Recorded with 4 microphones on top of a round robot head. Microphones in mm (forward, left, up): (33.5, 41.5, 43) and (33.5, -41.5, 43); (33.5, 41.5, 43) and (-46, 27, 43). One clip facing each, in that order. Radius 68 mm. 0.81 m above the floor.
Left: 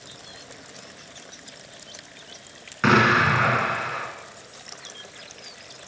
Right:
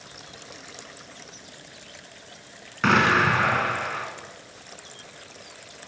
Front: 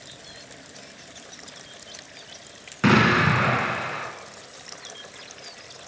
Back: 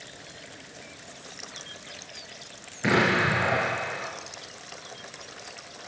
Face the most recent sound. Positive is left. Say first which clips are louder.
# left 1 dB, front 4 dB
turn(degrees=5)